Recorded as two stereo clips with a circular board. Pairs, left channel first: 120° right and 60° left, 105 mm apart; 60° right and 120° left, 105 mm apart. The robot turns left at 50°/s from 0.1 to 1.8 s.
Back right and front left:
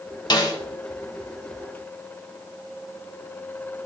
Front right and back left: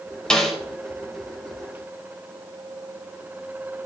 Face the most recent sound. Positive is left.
turn(degrees=145)